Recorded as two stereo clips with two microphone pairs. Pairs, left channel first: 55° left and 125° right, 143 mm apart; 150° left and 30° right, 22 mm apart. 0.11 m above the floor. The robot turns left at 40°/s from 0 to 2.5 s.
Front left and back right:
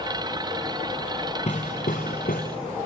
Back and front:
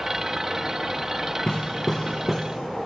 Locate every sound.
1.5 s hammering: 95° left, 3 m; by 2.4 s 55° left, 3 m